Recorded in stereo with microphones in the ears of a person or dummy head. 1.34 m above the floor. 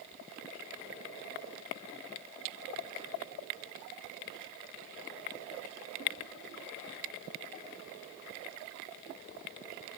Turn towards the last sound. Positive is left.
No sound to turn to.